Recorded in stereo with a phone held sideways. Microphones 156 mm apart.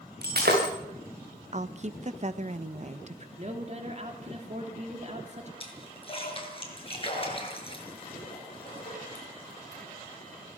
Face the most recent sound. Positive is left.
turn(degrees=35)  # may be behind; listen again after turning